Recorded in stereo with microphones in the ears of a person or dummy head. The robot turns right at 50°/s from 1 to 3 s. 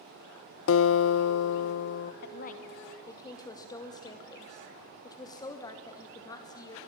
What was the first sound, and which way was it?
A guitar, 75° left.